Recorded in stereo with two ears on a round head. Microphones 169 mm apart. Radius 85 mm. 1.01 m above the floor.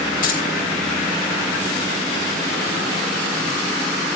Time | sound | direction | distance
0.2 | keys jangling | 45° left (ahead or behind) | 3.5 m